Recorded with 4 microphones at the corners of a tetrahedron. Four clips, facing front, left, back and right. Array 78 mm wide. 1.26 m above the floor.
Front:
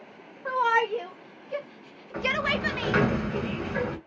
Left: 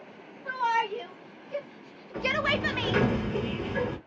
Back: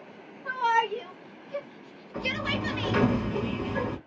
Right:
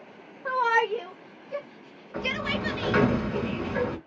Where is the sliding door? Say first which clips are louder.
Left 2 dB, front 4 dB; 35° right, 1.7 m.